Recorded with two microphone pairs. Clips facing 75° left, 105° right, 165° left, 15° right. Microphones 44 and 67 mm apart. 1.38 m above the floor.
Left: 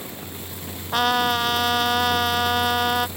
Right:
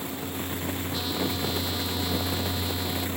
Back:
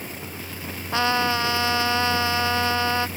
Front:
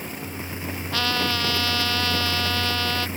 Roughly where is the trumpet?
Left.